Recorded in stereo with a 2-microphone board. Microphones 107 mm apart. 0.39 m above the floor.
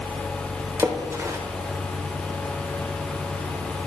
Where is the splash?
30° right (ahead or behind), 0.9 m.